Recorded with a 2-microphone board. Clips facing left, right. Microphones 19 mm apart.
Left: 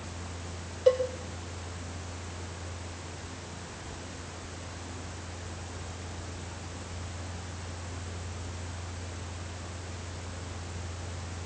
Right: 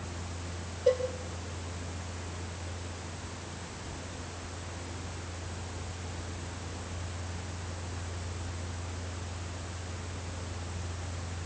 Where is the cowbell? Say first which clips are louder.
Left 3 dB; 45° left (ahead or behind), 5.5 m.